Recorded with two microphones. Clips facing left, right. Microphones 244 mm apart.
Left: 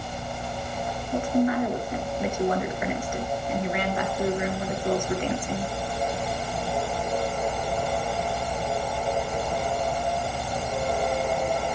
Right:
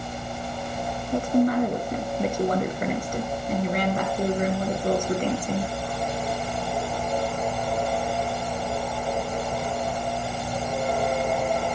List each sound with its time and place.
1.1 s a woman speaking: 40° right (ahead or behind), 3 m